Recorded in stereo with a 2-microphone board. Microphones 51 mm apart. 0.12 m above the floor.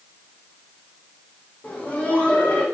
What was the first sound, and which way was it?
Laughter, 30° left (ahead or behind).